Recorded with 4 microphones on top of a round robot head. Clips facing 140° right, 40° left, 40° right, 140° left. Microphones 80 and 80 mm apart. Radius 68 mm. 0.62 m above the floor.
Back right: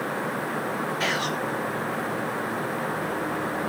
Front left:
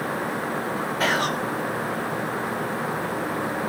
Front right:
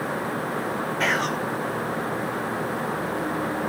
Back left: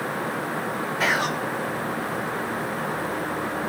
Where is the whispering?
60° left, 1.3 m.